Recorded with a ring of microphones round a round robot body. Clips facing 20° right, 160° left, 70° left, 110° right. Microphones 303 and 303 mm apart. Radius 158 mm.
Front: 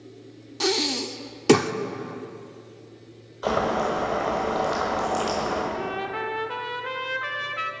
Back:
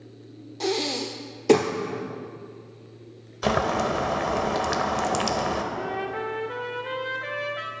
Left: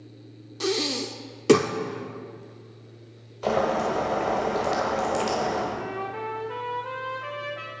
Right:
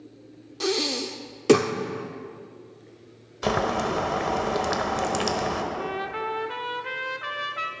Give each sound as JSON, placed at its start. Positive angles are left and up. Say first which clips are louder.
{"t": 0.6, "sound": "breathing", "louder": "front 1 dB, even", "azimuth_deg": -15, "distance_m": 0.8}
{"t": 3.4, "sound": "boiling", "louder": "even, left 1 dB", "azimuth_deg": -165, "distance_m": 1.6}
{"t": 5.7, "sound": "a trumpet", "louder": "even, right 1 dB", "azimuth_deg": -80, "distance_m": 1.2}